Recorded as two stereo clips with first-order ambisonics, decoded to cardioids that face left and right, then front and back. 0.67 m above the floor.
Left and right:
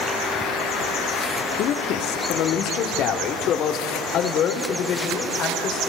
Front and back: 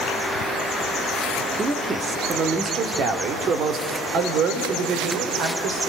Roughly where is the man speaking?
Left.